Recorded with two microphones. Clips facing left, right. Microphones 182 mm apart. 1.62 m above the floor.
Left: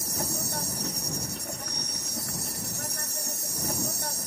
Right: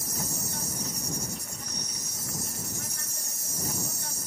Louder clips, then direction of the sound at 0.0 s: Left 3 dB; 65° left (ahead or behind).